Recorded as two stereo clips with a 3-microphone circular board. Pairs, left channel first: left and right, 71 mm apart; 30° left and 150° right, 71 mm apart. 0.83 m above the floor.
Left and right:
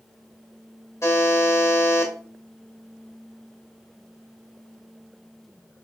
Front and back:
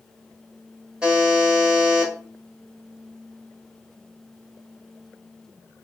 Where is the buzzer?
135° left, 1.3 m.